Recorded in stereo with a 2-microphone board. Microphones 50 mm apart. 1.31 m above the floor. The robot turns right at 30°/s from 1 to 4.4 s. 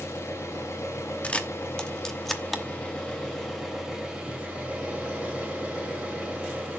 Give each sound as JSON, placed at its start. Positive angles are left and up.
{"t": 0.0, "sound": "an engine running", "azimuth_deg": 100, "distance_m": 5.5}
{"t": 1.2, "sound": "a camera shutter", "side_deg": 25, "distance_m": 1.0}